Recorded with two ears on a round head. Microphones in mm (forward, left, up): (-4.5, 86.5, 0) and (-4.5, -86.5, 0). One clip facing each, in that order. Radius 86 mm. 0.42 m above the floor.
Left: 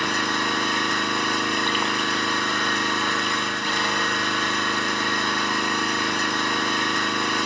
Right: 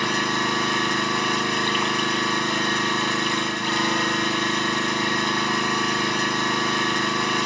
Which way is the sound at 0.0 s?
30° right (ahead or behind).